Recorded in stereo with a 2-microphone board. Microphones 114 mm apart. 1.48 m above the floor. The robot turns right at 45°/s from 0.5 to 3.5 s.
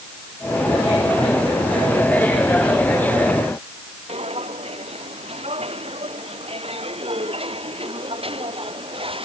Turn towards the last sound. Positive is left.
turn(degrees=-60)  # may be behind; listen again after turning